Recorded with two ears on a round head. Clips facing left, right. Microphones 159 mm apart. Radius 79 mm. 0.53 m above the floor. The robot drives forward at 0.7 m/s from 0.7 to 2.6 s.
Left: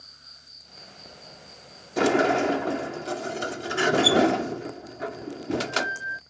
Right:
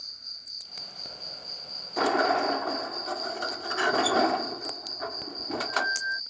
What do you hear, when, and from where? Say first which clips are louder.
0.0 s an insect: left 2 dB; 60° right (ahead or behind); by 6.3 s 50° right (ahead or behind)
2.0 s a sliding door: left 4 dB; 30° left (ahead or behind)